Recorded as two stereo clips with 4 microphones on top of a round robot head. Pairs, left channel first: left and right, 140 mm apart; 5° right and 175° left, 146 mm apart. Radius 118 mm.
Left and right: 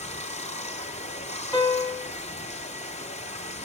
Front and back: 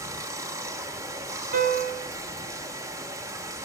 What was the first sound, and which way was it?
Running water, 110° left.